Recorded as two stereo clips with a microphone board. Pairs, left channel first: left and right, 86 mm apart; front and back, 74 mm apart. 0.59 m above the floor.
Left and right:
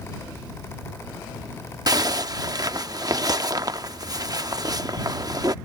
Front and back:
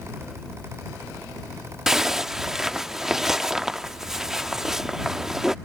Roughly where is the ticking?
No ticking in this recording.